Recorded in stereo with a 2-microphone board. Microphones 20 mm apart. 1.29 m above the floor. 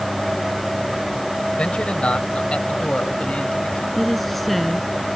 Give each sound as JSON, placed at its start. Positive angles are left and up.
{"t": 1.6, "sound": "a man speaking", "side_deg": 90}
{"t": 4.0, "sound": "a woman speaking", "side_deg": 5}